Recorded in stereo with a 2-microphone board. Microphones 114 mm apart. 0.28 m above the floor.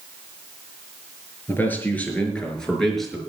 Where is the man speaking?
20° left (ahead or behind), 5.5 m; by 3.2 s centre (ahead or behind), 5 m.